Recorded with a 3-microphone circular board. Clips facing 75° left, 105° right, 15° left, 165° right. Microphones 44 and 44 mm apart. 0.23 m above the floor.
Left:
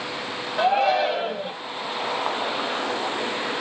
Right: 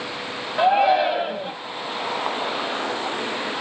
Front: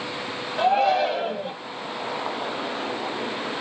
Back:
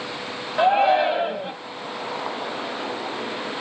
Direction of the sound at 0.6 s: 165° right.